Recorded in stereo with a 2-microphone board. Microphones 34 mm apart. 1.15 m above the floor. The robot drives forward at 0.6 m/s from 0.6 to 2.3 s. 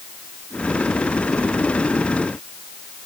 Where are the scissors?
No scissors in this recording.